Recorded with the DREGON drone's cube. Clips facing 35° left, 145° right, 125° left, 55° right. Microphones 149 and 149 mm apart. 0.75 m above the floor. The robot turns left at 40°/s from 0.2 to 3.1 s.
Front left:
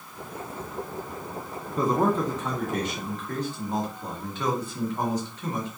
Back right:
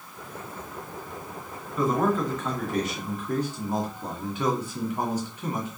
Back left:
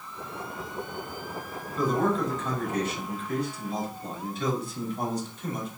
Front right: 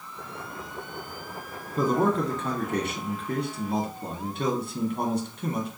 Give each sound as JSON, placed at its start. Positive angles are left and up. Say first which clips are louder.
{"t": 1.8, "sound": "a man speaking", "louder": "front left 1 dB, front right 2 dB", "azimuth_deg": -15, "distance_m": 1.5}